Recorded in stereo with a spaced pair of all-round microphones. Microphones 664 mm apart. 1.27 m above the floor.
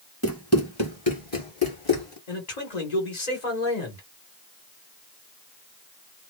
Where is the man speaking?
80° left, 1.5 m.